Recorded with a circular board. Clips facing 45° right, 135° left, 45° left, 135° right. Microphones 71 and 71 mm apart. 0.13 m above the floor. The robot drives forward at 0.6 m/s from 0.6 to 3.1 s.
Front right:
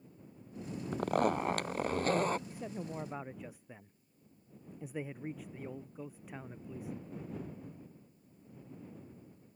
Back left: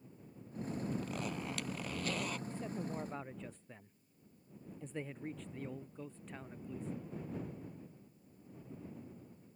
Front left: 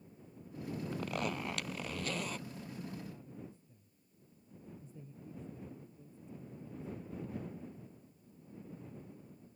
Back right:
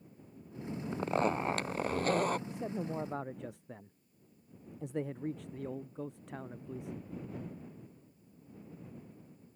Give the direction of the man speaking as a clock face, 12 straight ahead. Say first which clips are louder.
Even, back right 8 dB; 4 o'clock.